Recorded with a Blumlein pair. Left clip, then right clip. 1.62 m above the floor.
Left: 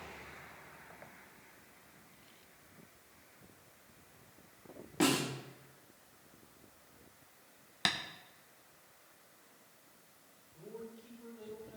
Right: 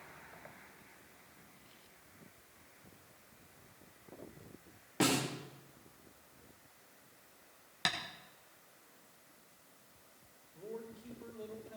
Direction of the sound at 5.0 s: Straight ahead.